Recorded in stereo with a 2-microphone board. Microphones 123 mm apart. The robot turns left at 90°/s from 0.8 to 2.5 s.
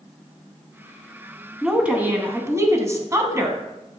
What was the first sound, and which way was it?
A woman speaking, centre (ahead or behind).